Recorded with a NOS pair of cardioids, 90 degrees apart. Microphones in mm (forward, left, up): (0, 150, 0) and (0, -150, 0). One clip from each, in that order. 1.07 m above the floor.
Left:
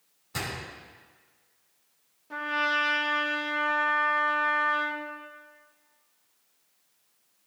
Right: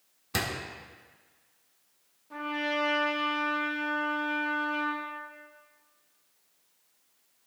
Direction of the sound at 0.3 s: 65° right.